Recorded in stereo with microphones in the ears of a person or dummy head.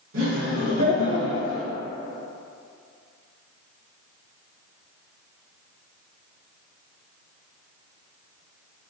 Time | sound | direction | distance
0.1 | laughter | 75° right (ahead or behind) | 1.5 m